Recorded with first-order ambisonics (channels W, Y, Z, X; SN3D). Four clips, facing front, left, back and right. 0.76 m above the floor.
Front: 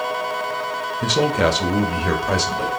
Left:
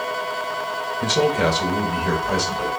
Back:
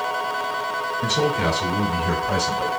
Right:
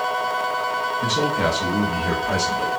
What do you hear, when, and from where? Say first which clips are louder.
1.0 s a man speaking: left 4 dB, front 4 dB; 30° left, 0.7 m; by 2.7 s 5° right, 1.4 m